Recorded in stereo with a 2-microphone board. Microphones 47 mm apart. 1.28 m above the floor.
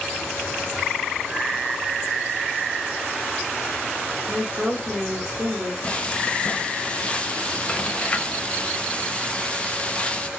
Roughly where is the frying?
Left.